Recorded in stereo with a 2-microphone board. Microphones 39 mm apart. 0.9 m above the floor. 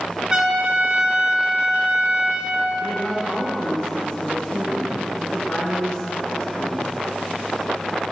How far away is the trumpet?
About 3 m.